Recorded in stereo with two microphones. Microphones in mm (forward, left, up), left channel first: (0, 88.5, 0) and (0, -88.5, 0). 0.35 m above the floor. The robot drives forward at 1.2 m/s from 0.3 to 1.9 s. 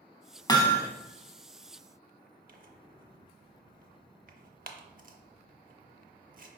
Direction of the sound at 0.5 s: 25° left (ahead or behind).